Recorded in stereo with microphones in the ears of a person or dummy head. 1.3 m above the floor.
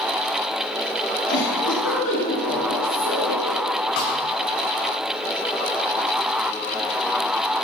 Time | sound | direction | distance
1.3 | a giggle | 70° left (ahead or behind) | 7.5 m
4.0 | a snare drum | 60° left (ahead or behind) | 5 m